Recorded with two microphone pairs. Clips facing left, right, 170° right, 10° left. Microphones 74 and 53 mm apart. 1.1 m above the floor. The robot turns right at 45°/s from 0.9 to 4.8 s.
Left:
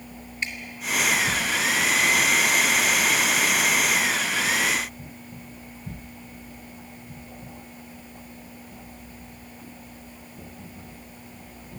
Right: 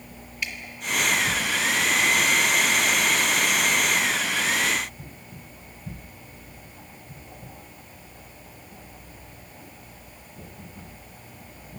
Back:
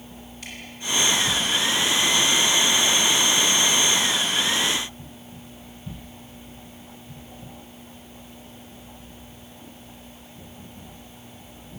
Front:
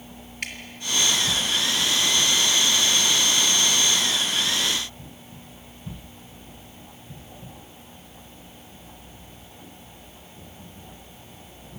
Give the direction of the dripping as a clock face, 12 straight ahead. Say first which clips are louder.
Left 1 dB, front 7 dB; 11 o'clock.